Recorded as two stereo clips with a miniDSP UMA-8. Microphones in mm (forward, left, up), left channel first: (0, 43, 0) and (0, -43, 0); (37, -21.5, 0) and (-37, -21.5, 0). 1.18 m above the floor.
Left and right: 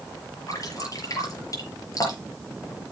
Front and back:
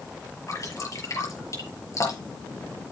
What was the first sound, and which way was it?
Dripping, 45° left.